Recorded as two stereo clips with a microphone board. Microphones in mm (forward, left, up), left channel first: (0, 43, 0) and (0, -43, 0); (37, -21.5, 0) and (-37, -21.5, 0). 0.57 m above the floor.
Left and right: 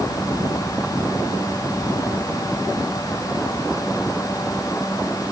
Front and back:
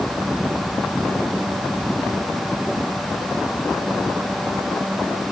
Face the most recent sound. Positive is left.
No sound to turn to.